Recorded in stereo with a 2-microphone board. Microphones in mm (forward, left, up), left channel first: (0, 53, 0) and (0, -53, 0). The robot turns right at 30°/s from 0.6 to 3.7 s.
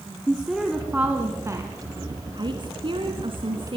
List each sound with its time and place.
0.3 s a woman speaking: 175° right, 2 m; by 3.8 s 80° right, 2 m